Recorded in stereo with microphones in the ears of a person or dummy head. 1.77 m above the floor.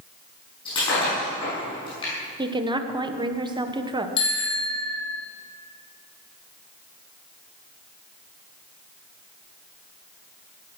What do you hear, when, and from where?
0.7 s breaking glass: 25° left (ahead or behind), 7.5 m
2.4 s a woman speaking: 20° right (ahead or behind), 1.6 m
4.2 s a bicycle bell: 30° left (ahead or behind), 3.5 m